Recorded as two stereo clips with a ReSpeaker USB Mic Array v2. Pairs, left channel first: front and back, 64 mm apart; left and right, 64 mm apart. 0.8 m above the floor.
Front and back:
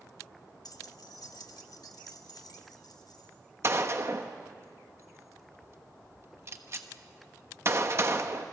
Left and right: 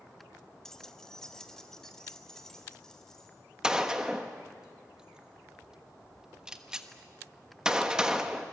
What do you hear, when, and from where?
0.7 s keys jangling: 10° left, 0.9 m
3.6 s a gunshot: 160° right, 1.2 m